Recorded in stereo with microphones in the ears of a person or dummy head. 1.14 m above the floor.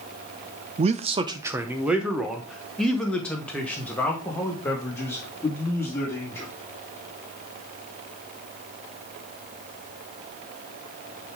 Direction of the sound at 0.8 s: 35° right (ahead or behind).